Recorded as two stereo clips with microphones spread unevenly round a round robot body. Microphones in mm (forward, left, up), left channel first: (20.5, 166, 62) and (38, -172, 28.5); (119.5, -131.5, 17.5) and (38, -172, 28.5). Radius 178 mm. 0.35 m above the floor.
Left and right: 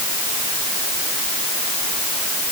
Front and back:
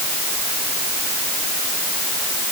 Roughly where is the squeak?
No squeak in this recording.